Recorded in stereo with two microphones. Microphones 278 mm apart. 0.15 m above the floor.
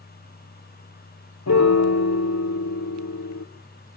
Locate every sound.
1.5 s a piano: 70° left (ahead or behind), 0.8 m